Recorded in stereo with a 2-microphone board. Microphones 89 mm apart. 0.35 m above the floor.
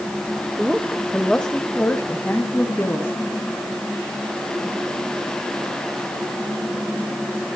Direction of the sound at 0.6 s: 5° right (ahead or behind).